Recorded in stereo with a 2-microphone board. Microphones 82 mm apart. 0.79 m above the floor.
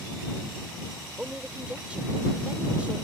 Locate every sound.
1.2 s a woman speaking: 15° right (ahead or behind)